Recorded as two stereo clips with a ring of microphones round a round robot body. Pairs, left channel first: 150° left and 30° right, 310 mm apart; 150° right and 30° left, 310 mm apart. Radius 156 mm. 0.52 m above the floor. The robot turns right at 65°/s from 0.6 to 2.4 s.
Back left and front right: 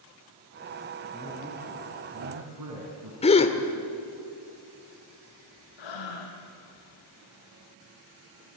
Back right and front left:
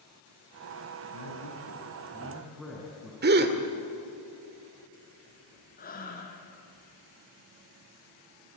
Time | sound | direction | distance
1.1 | a man speaking | 145° right | 5.5 m
3.2 | a gasp | 85° left | 1.9 m
5.8 | breathing | 145° left | 3.5 m